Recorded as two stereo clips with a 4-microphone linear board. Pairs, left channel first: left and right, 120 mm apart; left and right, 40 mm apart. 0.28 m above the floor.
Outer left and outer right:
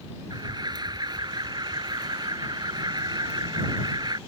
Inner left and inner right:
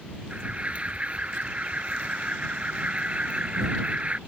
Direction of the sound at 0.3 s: 35° right (ahead or behind).